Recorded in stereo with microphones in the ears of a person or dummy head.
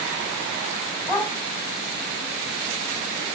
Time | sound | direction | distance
1.1 | a dog barking | 10° right (ahead or behind) | 3 m